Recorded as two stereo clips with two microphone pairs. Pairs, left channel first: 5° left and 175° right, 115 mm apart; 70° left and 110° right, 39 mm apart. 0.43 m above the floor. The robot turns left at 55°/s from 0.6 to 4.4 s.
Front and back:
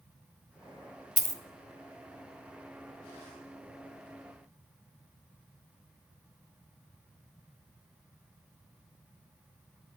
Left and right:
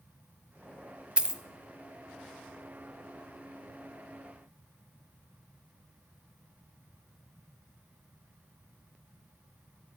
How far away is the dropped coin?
About 0.5 m.